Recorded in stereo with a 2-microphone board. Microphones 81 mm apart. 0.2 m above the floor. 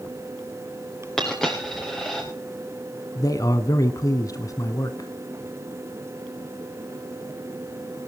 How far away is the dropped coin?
About 6.5 m.